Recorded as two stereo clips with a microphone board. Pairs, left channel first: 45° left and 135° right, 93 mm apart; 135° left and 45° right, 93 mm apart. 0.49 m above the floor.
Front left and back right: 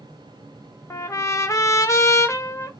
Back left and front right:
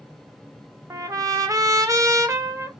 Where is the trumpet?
Straight ahead, 0.5 m.